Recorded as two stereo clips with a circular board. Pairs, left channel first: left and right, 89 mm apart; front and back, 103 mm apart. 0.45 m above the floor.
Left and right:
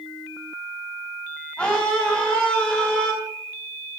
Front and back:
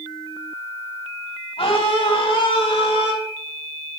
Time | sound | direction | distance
1.6 | a scream | 10° left | 3 m